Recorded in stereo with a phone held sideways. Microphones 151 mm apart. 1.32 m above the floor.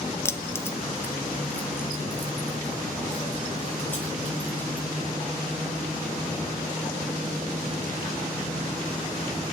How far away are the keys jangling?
About 0.6 m.